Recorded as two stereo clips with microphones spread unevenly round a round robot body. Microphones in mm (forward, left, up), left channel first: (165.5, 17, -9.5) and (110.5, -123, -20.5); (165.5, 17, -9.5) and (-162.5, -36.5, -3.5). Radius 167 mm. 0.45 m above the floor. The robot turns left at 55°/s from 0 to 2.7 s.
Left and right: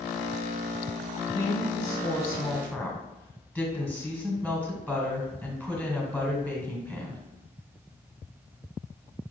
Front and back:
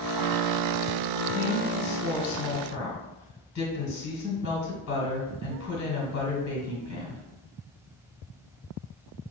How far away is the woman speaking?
About 1.7 m.